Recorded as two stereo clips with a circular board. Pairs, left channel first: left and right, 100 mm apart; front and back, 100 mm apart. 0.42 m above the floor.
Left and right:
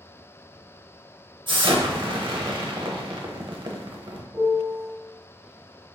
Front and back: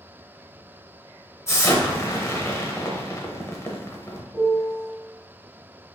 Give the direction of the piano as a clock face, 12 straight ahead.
4 o'clock.